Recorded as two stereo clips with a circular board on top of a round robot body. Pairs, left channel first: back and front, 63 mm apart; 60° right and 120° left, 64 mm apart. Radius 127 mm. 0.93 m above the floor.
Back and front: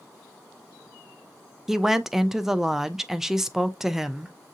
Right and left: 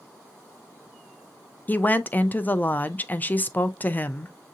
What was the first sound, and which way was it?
A woman speaking, 75° right.